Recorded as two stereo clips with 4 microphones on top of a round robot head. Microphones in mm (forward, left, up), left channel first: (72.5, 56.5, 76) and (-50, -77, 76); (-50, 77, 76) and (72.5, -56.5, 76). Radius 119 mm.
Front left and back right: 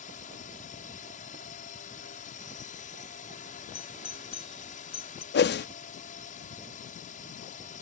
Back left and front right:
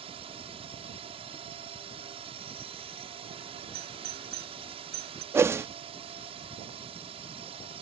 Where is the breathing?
I don't hear breathing.